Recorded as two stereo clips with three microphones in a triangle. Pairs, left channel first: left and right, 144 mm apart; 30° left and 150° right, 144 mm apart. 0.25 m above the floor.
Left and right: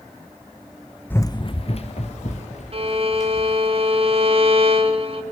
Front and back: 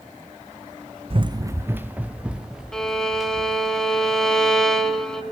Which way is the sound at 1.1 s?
170° left.